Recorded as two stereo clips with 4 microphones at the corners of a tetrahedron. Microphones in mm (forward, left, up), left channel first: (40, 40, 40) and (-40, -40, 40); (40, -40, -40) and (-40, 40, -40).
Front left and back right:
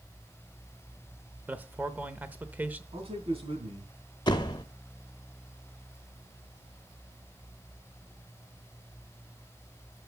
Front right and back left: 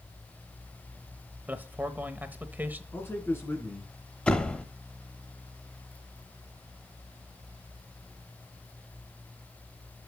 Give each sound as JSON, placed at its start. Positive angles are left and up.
{"t": 1.5, "sound": "a man speaking", "azimuth_deg": 175, "distance_m": 0.9}
{"t": 2.9, "sound": "a man speaking", "azimuth_deg": -115, "distance_m": 3.0}
{"t": 4.3, "sound": "a door slam", "azimuth_deg": 30, "distance_m": 0.8}